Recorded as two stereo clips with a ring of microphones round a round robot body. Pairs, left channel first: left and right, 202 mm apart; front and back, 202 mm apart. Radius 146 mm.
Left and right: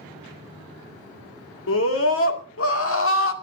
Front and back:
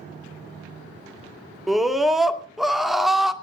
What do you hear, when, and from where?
1.7 s a scream: 90° left, 2 m